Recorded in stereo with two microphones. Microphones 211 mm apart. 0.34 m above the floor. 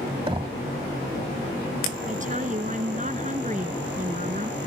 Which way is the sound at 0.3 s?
25° right (ahead or behind).